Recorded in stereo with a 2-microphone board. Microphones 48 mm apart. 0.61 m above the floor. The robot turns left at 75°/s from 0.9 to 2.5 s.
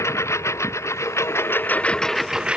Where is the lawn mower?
80° left; by 2.6 s 20° right (ahead or behind).